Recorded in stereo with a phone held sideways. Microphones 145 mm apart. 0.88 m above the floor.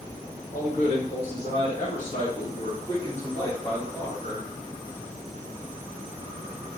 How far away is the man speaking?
About 1.3 m.